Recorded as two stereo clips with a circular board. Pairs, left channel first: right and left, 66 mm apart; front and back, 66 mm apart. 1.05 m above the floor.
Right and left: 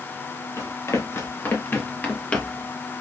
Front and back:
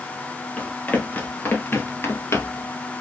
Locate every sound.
0.6 s running footsteps: 65° right, 1.8 m; by 2.7 s 15° right, 1.4 m